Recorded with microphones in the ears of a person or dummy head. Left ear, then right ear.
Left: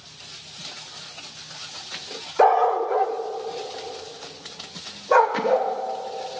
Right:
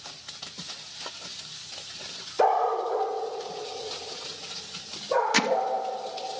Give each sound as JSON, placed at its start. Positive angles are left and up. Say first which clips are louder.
{"t": 2.4, "sound": "a dog barking", "louder": "left 5 dB", "side_deg": 20, "distance_m": 1.1}
{"t": 5.3, "sound": "hammering", "louder": "even", "side_deg": -75, "distance_m": 0.6}